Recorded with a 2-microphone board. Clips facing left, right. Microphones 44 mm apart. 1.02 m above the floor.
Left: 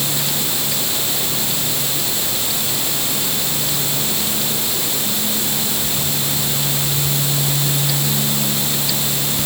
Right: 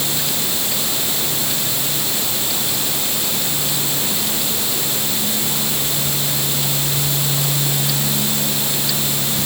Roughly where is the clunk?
No clunk in this recording.